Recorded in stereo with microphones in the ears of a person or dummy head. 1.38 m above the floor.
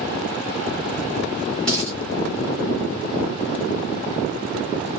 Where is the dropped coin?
Centre (ahead or behind), 1.8 m.